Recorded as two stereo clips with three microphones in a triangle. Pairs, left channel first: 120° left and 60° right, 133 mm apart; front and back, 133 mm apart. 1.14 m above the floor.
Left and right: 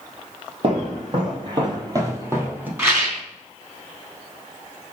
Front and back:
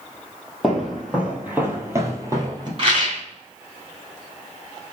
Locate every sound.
0.6 s footsteps: 90° right, 2 m; by 2.7 s 130° right, 1.8 m
2.8 s a rattle: 130° right, 2.5 m